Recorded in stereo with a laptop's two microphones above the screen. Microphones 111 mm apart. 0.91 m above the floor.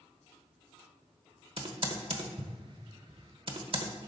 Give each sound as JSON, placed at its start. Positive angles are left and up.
{"t": 1.6, "sound": "typing on a keyboard", "side_deg": -50, "distance_m": 0.9}